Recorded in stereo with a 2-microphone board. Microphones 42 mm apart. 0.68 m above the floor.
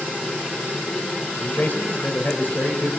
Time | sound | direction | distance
1.4 | a man speaking | 40° left (ahead or behind) | 3 m